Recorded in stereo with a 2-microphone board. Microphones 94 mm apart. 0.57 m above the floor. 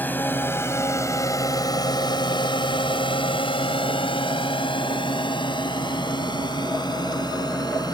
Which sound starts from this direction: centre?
A drone, at 0.0 s.